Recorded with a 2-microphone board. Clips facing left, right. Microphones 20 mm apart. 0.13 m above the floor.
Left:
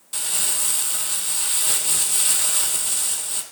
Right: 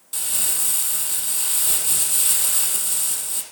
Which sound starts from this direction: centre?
Crumpling, at 0.1 s.